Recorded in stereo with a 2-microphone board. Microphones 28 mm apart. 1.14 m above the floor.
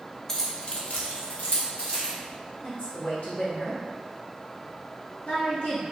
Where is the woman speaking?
80° left, 1.4 m.